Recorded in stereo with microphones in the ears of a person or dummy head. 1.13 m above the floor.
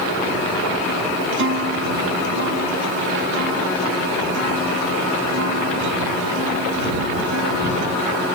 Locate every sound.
1.3 s a guitar: 65° right (ahead or behind)